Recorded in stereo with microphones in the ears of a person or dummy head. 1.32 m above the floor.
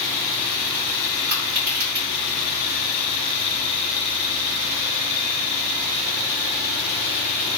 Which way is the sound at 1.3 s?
50° right (ahead or behind).